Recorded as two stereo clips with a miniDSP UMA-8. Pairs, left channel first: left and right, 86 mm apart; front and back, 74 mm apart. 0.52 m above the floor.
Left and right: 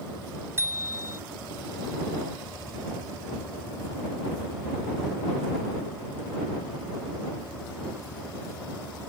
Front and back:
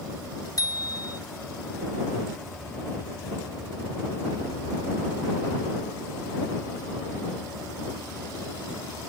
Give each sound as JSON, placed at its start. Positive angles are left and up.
{"t": 0.6, "sound": "a bicycle bell", "azimuth_deg": -30}